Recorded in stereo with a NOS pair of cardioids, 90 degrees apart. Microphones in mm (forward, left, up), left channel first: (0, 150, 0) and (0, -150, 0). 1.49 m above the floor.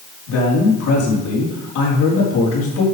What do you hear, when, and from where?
0.3 s a man speaking: 70° left, 4 m